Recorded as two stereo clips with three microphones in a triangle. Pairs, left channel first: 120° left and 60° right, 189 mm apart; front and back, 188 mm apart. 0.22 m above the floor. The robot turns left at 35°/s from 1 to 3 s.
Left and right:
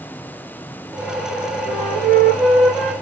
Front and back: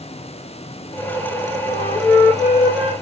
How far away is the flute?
About 2.5 m.